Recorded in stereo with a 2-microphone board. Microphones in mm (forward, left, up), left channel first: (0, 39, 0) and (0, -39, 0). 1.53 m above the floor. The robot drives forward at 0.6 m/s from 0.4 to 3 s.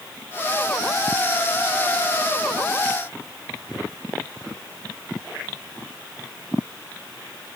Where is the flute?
I don't hear a flute.